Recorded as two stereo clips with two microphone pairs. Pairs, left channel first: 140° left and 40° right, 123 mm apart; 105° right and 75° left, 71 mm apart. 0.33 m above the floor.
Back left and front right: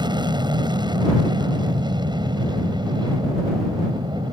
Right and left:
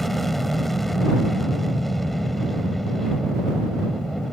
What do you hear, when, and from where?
0.0 s an aircraft: 20° right